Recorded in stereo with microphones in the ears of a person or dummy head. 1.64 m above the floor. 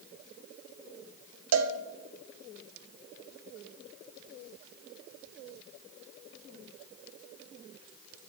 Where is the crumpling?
No crumpling in this recording.